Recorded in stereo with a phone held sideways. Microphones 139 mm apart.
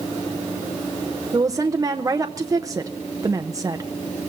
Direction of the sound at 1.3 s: 25° right (ahead or behind).